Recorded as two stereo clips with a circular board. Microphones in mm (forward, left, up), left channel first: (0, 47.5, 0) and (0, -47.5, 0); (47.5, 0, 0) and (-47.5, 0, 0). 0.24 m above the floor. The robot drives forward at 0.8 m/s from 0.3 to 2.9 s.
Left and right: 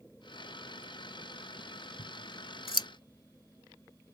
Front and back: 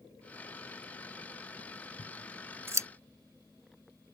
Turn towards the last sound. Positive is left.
turn(degrees=130)